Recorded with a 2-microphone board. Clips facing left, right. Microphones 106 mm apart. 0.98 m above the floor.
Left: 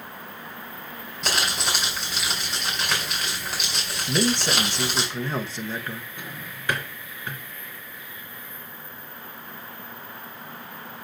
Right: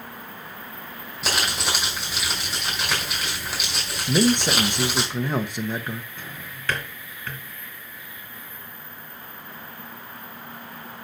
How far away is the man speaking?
About 0.9 m.